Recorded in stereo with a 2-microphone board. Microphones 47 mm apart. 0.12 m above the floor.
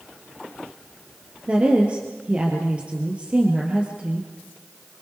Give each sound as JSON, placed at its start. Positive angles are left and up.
{"t": 1.5, "sound": "a woman speaking", "side_deg": -30, "distance_m": 3.0}